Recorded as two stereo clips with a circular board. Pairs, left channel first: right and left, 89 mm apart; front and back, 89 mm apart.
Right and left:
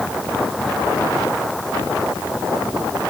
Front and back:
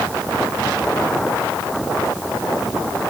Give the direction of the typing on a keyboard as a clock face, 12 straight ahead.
No typing on a keyboard in this recording.